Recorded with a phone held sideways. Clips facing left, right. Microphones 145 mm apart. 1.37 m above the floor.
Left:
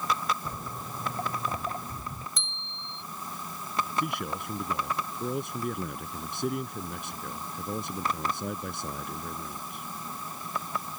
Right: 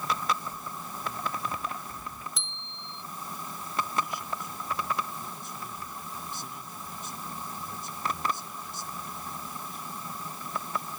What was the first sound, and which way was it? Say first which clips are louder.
Footsteps: left 1 dB; 50° left (ahead or behind).